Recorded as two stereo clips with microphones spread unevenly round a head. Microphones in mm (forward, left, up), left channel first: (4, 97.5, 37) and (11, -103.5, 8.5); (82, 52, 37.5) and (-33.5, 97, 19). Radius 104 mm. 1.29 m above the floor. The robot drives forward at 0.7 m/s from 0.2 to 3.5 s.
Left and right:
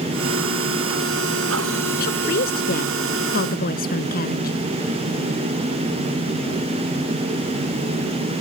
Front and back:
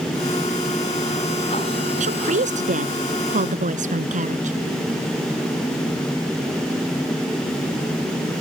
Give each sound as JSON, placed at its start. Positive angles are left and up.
{"t": 2.0, "sound": "a woman speaking", "azimuth_deg": 140}